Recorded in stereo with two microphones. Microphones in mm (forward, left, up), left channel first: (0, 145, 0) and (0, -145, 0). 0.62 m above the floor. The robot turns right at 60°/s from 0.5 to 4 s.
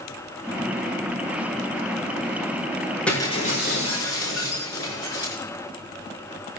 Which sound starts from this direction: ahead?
Breaking glass, at 3.1 s.